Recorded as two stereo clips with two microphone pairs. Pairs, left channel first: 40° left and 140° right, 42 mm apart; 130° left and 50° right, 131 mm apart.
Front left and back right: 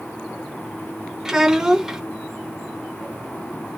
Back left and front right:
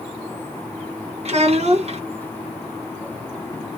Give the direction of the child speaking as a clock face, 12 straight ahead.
2 o'clock.